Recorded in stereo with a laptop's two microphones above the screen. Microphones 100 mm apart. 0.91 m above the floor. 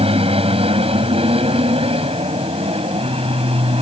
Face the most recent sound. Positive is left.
turn(degrees=-75)  # may be behind; listen again after turning